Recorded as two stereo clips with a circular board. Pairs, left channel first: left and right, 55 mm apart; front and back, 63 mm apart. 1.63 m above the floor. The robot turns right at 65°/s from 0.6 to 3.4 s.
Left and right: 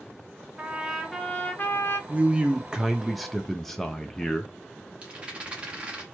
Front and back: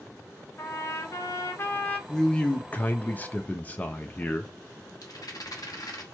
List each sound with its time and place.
0.6 s a trumpet: 25° right, 0.7 m; by 2.0 s 70° left, 0.7 m
2.1 s a man speaking: 70° right, 0.5 m; by 4.5 s 15° left, 0.5 m
5.0 s a rattle: 20° right, 1.0 m